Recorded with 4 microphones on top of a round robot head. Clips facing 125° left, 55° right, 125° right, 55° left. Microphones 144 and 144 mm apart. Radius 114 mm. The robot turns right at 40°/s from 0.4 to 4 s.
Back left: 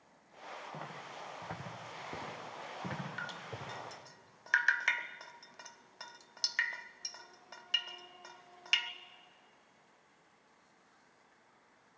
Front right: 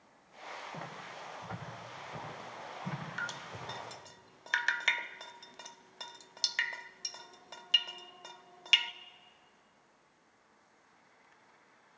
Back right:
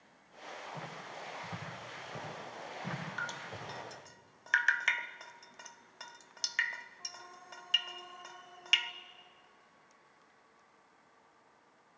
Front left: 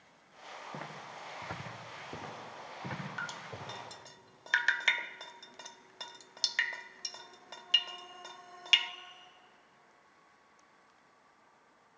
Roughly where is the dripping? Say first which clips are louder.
Front right 1 dB, even; ahead right.